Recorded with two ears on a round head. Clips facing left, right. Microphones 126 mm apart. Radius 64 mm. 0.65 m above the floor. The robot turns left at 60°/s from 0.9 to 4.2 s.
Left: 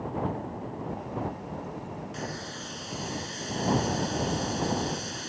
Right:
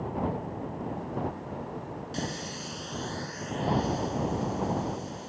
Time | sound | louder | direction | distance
2.1 | a running tap | right 2 dB | 140° right | ?